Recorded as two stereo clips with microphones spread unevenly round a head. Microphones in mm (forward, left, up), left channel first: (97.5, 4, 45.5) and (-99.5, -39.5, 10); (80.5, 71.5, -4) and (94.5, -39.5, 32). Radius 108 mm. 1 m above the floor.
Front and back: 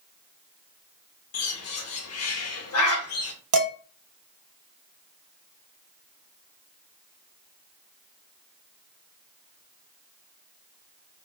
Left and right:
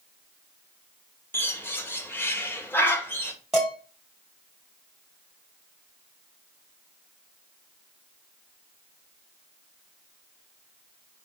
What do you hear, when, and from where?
1.3 s a bird: 20° left, 1.2 m
3.5 s dishes clattering: 170° right, 1.3 m